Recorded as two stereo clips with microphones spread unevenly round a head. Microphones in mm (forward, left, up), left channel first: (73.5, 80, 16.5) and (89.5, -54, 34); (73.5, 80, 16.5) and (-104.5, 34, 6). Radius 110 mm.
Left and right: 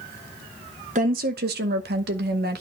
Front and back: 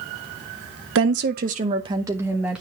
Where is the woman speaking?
140° right, 0.7 m; by 2.6 s 80° right, 1.2 m.